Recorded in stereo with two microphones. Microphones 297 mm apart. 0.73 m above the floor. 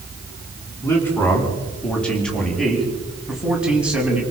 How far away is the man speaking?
About 7.5 m.